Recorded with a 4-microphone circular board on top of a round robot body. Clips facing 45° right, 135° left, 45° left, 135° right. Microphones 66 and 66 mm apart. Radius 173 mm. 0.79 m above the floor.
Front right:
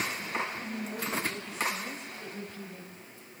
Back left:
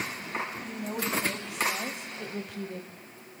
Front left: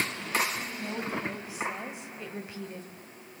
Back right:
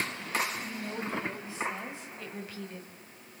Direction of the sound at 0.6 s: 120° left.